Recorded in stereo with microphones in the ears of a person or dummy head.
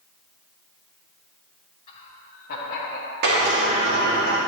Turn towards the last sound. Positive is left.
turn(degrees=-55)  # may be behind; listen again after turning